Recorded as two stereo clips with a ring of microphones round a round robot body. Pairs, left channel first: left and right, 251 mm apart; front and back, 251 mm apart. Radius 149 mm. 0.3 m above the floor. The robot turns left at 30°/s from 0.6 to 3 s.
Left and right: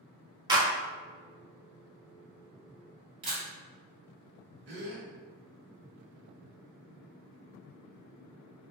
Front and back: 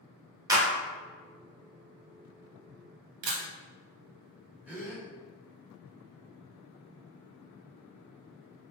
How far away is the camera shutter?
About 0.6 m.